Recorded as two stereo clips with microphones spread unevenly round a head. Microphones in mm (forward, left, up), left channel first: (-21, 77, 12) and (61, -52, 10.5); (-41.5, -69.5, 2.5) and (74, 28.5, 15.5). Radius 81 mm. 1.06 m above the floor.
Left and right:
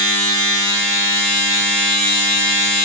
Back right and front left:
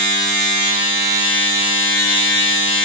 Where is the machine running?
25° left, 1.5 m.